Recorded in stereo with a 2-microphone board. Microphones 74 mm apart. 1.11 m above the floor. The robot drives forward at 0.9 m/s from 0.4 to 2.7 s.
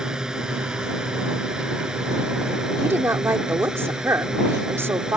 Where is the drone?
10° right (ahead or behind).